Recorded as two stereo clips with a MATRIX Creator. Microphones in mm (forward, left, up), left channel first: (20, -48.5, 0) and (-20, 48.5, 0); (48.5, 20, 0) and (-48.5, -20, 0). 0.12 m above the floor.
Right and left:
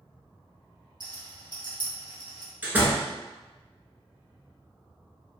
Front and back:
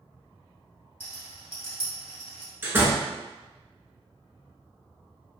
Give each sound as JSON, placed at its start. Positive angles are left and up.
{"t": 1.0, "sound": "a rattle", "azimuth_deg": 140, "distance_m": 1.5}
{"t": 2.6, "sound": "a door slam", "azimuth_deg": 165, "distance_m": 0.8}